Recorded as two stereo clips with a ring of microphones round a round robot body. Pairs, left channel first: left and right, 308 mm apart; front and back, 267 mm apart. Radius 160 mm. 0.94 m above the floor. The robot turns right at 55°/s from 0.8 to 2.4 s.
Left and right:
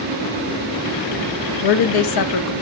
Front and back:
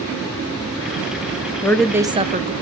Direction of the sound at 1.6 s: 80° left.